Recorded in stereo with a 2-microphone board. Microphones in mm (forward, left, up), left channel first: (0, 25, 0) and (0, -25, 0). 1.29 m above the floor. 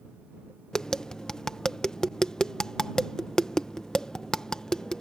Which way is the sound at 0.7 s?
15° left (ahead or behind).